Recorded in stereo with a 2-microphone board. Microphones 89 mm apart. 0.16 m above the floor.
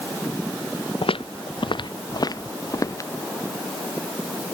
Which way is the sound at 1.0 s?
85° left.